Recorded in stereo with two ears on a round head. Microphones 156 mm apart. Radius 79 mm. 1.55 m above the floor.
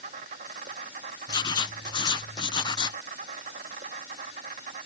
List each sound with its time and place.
0.0 s an insect: 45° right (ahead or behind)
1.3 s writing: 25° left (ahead or behind)